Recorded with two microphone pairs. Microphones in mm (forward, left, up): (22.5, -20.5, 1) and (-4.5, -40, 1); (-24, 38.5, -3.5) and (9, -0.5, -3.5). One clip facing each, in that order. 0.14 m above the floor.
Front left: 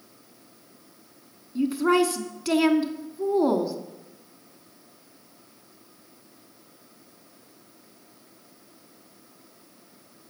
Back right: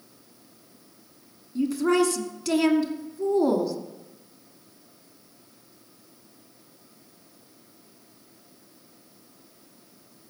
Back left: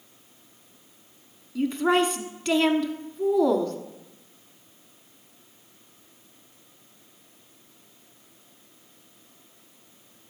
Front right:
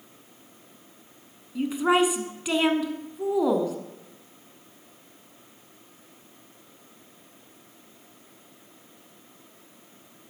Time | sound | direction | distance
1.6 | a woman speaking | 20° left | 1.1 m